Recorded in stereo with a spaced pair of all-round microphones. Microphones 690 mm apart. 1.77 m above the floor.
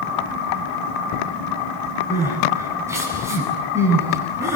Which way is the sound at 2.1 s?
5° right (ahead or behind).